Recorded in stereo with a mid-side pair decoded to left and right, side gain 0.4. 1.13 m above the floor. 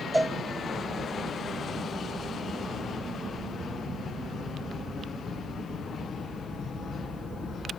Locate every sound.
0.1 s a cowbell: straight ahead, 0.9 m